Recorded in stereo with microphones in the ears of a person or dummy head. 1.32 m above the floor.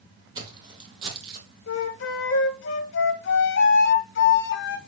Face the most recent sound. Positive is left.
turn(degrees=65)  # may be behind; listen again after turning